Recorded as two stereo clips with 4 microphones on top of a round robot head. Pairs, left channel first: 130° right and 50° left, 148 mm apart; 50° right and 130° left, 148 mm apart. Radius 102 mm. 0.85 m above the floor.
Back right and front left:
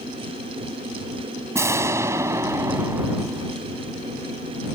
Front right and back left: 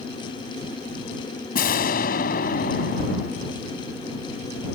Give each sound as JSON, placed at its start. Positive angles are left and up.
{"t": 1.6, "sound": "an explosion", "azimuth_deg": -20}